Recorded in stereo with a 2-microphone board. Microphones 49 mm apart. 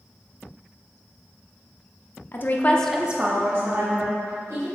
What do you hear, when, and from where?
2.3 s a woman speaking: 50° left (ahead or behind), 0.8 m; by 4.7 s 75° right (ahead or behind), 1.9 m